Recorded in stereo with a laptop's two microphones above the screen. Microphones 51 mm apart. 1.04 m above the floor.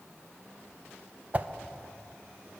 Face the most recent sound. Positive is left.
turn(degrees=-35)  # may be behind; listen again after turning